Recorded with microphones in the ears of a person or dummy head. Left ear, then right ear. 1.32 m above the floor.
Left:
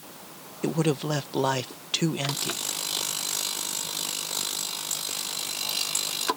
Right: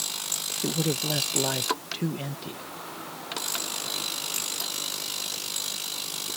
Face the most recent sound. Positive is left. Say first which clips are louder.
# left 4 dB
turn(degrees=40)  # may be behind; listen again after turning